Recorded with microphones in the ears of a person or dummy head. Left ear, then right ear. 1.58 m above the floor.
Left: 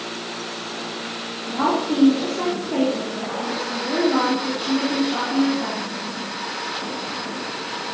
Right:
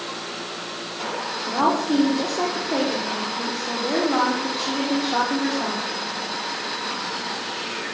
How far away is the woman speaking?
About 4.5 m.